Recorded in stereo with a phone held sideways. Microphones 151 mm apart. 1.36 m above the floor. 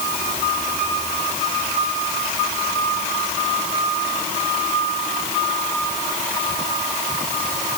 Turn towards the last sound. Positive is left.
No sound to turn to.